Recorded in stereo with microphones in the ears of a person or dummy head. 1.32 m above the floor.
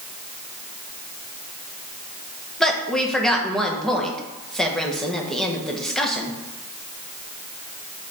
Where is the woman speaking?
Centre (ahead or behind), 1.2 m.